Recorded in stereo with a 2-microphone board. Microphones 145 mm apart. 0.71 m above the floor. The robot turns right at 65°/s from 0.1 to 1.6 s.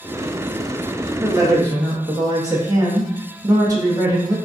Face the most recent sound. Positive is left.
turn(degrees=-25)  # may be behind; listen again after turning